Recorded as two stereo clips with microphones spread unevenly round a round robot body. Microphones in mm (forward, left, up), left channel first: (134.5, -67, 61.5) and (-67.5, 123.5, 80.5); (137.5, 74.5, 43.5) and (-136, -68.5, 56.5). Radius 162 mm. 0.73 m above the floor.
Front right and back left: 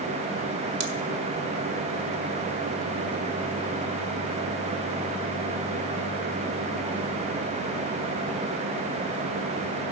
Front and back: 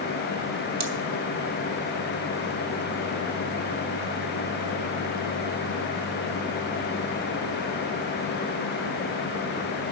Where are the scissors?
165° left, 1.2 m.